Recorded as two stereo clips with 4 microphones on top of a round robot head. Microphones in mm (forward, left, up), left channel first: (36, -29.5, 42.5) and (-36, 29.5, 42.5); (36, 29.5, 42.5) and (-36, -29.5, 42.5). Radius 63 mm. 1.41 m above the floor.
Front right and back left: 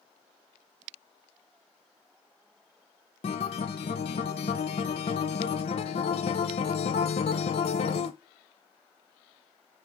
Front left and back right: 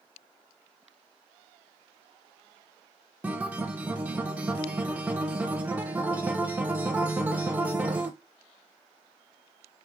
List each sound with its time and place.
3.2 s a guitar: 65° right, 0.5 m